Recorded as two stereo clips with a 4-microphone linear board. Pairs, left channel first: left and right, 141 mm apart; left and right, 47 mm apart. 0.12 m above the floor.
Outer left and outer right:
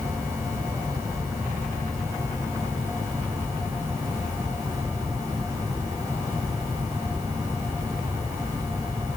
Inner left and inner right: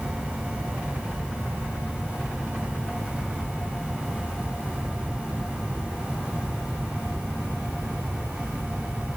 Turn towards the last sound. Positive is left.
No sound to turn to.